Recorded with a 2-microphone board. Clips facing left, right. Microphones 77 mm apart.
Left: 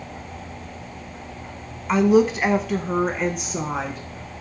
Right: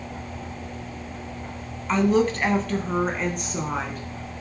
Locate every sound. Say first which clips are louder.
1.9 s a woman speaking: left 4 dB; 10° left (ahead or behind), 1.1 m; by 4.0 s centre (ahead or behind), 1.7 m